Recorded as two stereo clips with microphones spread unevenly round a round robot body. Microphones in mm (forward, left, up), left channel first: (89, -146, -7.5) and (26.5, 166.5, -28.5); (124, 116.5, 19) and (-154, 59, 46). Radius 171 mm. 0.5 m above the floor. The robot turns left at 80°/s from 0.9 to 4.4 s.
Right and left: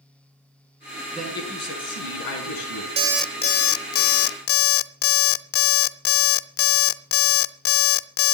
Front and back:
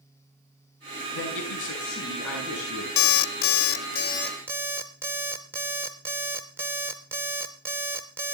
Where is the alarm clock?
30° left, 0.6 m; by 8.3 s 85° right, 0.6 m.